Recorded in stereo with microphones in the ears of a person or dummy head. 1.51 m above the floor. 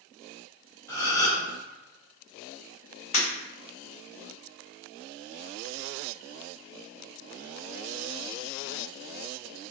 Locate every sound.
0.9 s a gasp: 15° left (ahead or behind), 2.0 m
3.1 s breaking glass: 40° left (ahead or behind), 1.9 m